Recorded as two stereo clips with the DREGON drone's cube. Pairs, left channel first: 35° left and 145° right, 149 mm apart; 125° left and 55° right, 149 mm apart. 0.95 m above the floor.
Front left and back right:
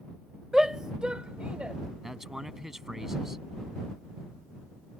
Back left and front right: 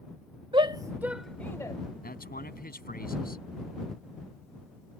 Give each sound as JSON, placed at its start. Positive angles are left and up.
{"t": 0.5, "sound": "a shout", "azimuth_deg": -60}
{"t": 2.0, "sound": "a man speaking", "azimuth_deg": 125}